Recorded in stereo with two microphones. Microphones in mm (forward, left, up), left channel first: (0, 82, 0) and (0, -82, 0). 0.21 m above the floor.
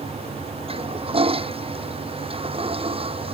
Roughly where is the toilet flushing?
Right.